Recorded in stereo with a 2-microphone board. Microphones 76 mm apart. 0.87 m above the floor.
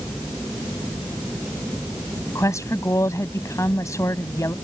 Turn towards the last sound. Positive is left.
turn(degrees=45)  # may be behind; listen again after turning